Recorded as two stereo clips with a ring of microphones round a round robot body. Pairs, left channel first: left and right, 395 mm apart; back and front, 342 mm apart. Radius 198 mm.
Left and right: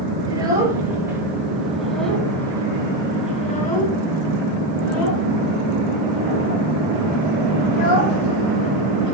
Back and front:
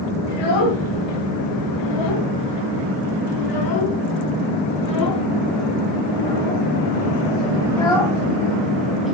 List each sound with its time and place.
0.3 s a child speaking: 170° right, 5.5 m; by 9.1 s 85° left, 4 m